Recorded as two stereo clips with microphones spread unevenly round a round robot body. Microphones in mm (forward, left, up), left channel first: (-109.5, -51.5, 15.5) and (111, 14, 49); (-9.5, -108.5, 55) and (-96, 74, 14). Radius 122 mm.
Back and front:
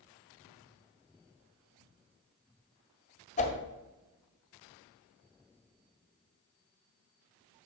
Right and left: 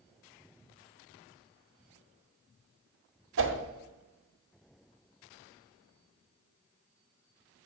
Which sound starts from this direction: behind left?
A whoosh, at 3.4 s.